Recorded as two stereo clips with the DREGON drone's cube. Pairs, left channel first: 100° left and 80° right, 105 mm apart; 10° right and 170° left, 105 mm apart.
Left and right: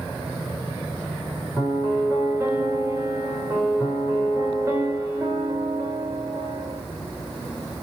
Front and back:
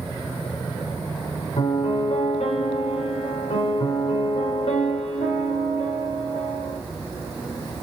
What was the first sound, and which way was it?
A piano, 15° right.